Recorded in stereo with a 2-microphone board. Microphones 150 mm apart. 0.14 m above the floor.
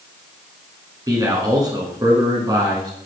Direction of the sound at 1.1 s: 25° right (ahead or behind).